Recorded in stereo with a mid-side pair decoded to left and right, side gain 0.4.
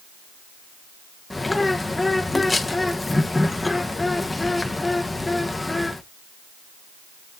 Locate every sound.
1.3 s a bird: 15° left, 1.1 m